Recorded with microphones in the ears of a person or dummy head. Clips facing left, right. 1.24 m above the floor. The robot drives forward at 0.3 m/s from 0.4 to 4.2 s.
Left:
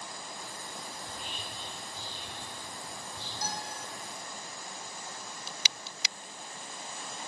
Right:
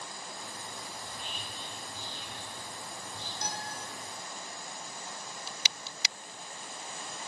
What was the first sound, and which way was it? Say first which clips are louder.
Whispering: left 1 dB; 65° right (ahead or behind).